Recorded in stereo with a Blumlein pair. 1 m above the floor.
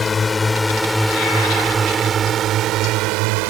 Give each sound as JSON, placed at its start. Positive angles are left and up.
{"t": 0.0, "sound": "a drone", "azimuth_deg": 15}